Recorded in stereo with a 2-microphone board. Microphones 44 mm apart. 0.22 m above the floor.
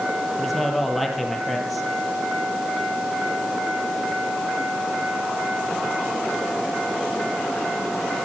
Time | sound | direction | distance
0.4 | a man speaking | centre (ahead or behind) | 6.5 m